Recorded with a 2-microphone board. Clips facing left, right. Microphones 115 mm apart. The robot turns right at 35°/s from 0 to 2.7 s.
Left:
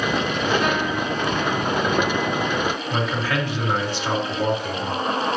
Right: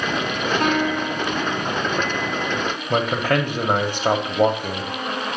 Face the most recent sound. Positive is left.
turn(degrees=-50)  # may be behind; listen again after turning